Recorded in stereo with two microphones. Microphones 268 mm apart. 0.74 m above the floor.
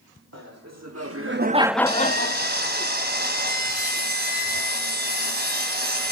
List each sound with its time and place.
0.3 s laughter: 75° right (ahead or behind), 1.9 m; by 2.9 s 55° left (ahead or behind), 1.8 m
1.9 s sawing: 35° right (ahead or behind), 3 m